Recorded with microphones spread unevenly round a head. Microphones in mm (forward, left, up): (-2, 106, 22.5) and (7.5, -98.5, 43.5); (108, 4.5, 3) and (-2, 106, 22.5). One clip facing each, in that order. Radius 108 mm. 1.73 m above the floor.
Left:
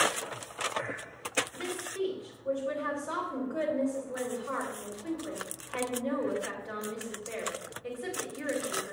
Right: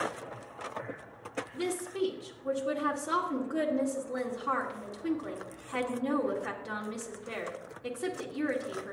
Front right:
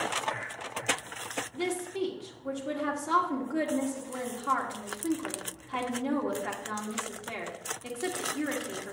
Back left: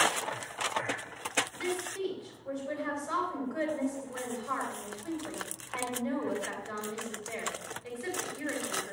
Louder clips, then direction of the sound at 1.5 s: Right 3 dB, front right 7 dB; 55° right.